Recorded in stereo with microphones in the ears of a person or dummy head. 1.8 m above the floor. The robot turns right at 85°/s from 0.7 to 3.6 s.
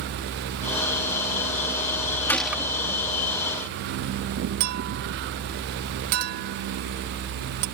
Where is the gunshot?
165° left; by 2.7 s 160° right.